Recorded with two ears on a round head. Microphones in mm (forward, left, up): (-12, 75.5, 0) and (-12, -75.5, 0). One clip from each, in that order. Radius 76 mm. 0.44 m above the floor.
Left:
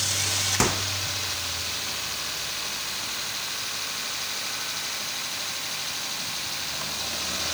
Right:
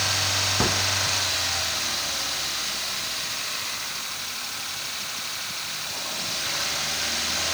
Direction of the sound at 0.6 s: 70° left (ahead or behind).